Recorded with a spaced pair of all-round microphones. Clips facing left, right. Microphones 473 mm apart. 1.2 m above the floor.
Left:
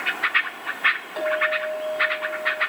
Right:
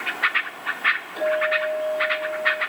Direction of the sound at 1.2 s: 80° left.